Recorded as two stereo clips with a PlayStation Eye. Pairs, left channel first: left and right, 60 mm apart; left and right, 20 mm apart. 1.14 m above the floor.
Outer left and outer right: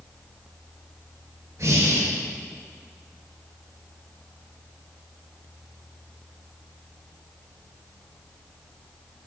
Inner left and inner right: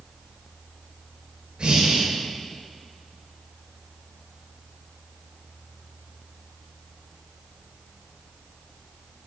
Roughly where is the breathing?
Right.